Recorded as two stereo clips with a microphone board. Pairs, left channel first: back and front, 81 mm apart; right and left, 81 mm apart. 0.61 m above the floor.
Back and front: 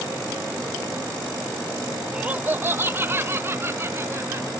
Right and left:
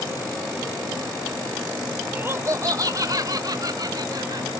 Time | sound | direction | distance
2.1 | laughter | 55° left | ?